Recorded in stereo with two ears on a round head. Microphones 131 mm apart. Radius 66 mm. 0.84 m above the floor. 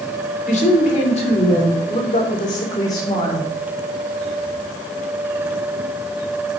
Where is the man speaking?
50° left (ahead or behind), 2.5 m; by 3.5 s 20° left (ahead or behind), 3 m.